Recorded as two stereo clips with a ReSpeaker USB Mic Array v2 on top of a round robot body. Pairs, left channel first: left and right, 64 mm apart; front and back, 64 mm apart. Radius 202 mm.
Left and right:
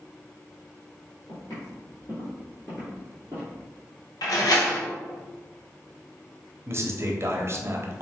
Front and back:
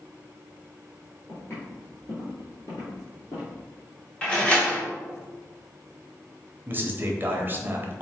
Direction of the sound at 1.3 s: 55° left.